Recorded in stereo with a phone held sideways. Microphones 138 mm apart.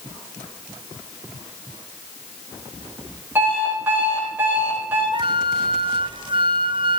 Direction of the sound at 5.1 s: 35° right (ahead or behind).